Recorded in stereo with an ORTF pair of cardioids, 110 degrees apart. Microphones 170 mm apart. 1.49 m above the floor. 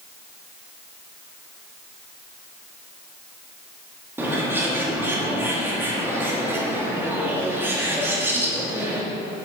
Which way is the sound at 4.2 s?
15° right.